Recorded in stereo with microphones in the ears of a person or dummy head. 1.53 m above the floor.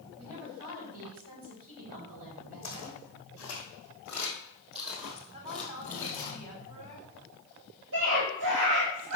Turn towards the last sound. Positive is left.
turn(degrees=-60)  # may be behind; listen again after turning